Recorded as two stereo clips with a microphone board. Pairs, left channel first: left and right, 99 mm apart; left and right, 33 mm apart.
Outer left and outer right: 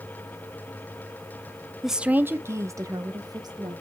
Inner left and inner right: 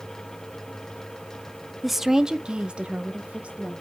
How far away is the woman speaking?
About 0.5 m.